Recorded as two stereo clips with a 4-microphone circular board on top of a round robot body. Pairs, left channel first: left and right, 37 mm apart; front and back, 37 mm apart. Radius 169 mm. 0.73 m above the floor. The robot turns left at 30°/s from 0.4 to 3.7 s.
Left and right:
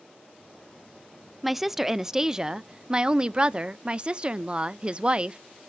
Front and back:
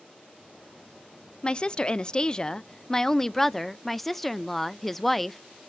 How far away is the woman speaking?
About 0.5 m.